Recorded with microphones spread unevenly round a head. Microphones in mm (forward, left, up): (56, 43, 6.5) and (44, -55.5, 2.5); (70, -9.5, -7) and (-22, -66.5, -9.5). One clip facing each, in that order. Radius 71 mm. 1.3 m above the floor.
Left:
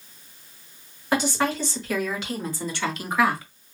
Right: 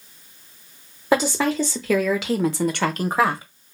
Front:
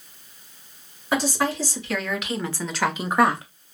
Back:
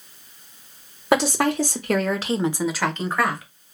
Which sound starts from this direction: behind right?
A woman speaking, at 1.1 s.